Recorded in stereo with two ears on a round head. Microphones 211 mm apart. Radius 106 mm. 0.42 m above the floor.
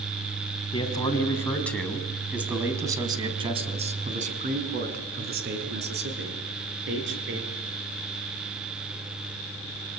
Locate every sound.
0.7 s a man speaking: 20° left (ahead or behind), 4 m; by 7.4 s 60° right (ahead or behind), 7 m